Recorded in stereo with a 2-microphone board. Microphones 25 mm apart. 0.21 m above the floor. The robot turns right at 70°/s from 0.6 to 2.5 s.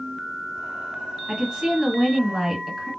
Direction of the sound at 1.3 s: 25° right (ahead or behind).